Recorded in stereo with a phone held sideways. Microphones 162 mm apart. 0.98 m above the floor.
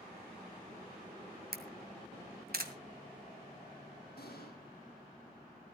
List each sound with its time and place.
1.5 s a camera shutter: 70° right (ahead or behind), 2 m
4.2 s an explosion: 85° left, 7.5 m